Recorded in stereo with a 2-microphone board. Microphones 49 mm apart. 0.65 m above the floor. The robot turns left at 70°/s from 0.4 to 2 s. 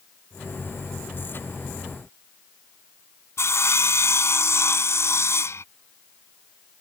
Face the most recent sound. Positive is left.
turn(degrees=65)  # may be behind; listen again after turning